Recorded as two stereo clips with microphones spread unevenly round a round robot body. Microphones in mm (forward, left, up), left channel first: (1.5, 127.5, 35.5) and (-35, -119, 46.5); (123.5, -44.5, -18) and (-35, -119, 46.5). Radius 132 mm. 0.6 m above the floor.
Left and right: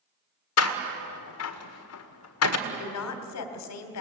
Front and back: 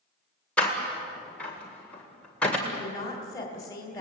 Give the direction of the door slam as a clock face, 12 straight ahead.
9 o'clock.